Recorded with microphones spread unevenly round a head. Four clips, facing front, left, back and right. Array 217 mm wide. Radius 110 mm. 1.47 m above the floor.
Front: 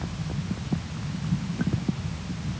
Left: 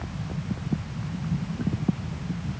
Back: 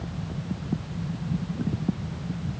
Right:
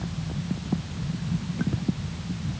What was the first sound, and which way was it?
Only background noise.